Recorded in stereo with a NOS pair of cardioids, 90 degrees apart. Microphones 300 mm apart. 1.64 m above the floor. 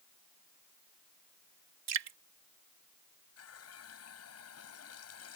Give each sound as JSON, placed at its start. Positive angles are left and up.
{"t": 1.9, "sound": "dripping", "azimuth_deg": -55}
{"t": 3.4, "sound": "a running tap", "azimuth_deg": 50}